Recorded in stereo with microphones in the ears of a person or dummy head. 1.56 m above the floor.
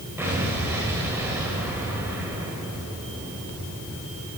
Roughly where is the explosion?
Centre.